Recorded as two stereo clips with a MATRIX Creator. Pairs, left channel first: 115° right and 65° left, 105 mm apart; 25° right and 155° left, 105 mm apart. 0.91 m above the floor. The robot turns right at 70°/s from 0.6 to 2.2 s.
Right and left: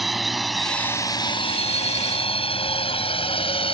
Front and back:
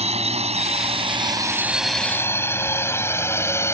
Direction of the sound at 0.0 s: 155° left.